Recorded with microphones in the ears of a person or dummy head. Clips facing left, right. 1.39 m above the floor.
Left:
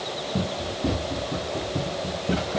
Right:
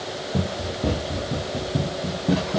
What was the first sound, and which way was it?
Running footsteps, 35° right (ahead or behind).